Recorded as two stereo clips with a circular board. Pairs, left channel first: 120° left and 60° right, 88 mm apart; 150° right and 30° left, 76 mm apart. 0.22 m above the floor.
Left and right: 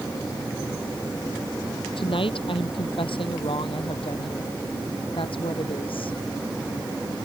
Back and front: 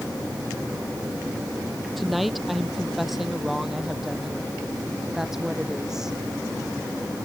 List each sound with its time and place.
2.0 s a woman speaking: 120° left; by 6.2 s 115° left